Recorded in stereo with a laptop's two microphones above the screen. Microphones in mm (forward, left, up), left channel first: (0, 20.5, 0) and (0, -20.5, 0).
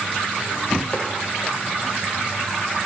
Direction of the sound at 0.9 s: 40° left (ahead or behind).